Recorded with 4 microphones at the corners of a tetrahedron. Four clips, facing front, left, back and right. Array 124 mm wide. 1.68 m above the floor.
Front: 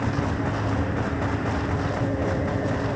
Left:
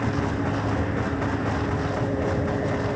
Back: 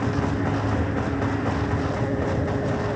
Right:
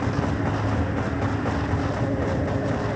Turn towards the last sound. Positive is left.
No sound to turn to.